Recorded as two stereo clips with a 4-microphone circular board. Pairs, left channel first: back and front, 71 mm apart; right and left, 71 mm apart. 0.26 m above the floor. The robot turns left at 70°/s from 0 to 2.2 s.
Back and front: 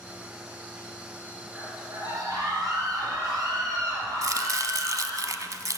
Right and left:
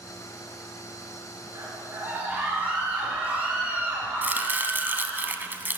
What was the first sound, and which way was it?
A scream, 70° left.